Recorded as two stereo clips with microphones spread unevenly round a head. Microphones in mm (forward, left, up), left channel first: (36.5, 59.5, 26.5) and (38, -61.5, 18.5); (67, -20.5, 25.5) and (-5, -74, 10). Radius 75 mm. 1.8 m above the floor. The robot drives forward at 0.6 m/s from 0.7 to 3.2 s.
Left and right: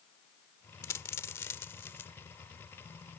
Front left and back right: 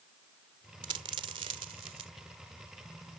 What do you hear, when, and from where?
0.8 s a dropped coin: 160° left; by 2.1 s 165° left